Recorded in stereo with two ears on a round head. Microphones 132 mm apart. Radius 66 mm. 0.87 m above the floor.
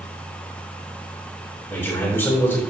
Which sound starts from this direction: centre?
A man speaking, at 1.7 s.